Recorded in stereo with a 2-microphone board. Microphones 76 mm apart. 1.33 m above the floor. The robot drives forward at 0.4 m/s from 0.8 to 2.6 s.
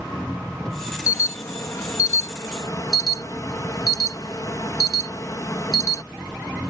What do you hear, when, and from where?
0.0 s an engine running: 10° left (ahead or behind)
1.1 s an alarm: 40° left (ahead or behind); by 6.0 s 50° left (ahead or behind)